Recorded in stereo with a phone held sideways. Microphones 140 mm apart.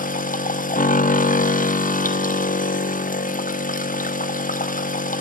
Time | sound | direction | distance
0.0 | a machine running | 75° left (ahead or behind) | 0.7 m